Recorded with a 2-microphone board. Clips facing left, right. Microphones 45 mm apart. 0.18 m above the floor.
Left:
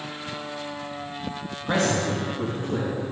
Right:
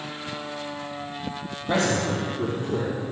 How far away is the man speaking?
About 2.5 m.